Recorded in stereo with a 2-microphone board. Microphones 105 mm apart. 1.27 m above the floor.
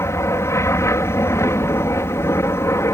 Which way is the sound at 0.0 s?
25° left (ahead or behind).